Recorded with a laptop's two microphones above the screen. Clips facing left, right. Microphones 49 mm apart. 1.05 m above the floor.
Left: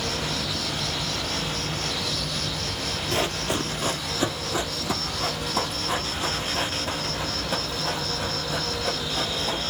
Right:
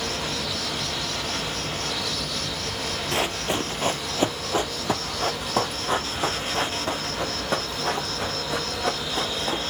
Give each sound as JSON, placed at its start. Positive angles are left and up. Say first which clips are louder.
{"t": 0.0, "sound": "an insect", "louder": "even", "side_deg": -35, "distance_m": 2.5}
{"t": 3.1, "sound": "running footsteps", "louder": "even", "side_deg": -20, "distance_m": 1.1}